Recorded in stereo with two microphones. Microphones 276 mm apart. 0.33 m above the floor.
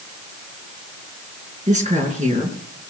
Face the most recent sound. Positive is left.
turn(degrees=-25)  # may be behind; listen again after turning